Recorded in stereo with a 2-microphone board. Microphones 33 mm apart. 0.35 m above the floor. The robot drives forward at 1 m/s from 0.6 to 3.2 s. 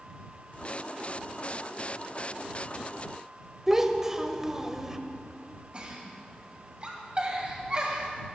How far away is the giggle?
About 2.5 m.